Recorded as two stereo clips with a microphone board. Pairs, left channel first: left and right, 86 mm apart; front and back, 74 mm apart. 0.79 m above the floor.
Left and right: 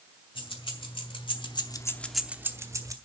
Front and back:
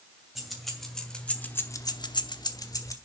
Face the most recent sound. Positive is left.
turn(degrees=-45)